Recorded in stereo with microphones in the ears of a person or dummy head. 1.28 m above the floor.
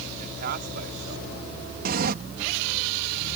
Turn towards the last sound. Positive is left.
turn(degrees=-55)  # may be behind; listen again after turning